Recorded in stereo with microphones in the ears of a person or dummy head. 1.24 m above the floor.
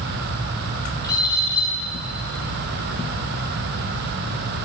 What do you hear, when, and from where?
1.0 s a bird: 10° left (ahead or behind), 5.5 m